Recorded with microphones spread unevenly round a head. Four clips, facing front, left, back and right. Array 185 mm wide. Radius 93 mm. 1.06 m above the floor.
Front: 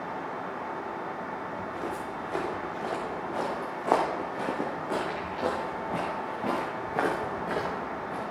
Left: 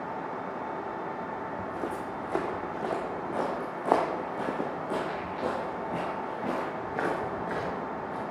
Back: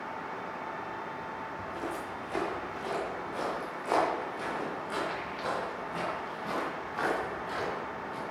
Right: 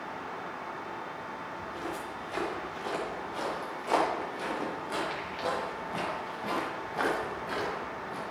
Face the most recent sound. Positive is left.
turn(degrees=10)